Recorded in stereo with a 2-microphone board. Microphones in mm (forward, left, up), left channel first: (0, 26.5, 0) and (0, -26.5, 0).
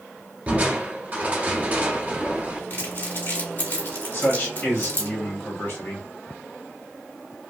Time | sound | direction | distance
0.5 | crushing | 30° right (ahead or behind) | 1.1 m
2.7 | crumpling | 45° left (ahead or behind) | 1.9 m
4.1 | a man speaking | 45° left (ahead or behind) | 1.4 m